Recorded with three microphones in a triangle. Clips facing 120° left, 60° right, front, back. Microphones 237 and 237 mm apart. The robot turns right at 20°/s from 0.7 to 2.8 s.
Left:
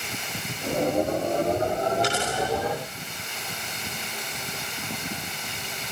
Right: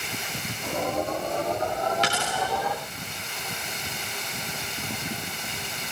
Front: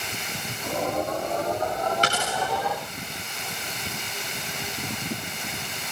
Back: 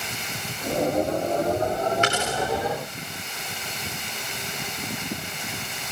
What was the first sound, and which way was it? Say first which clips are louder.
A dropped coin: left 3 dB, back 2 dB; 55° right.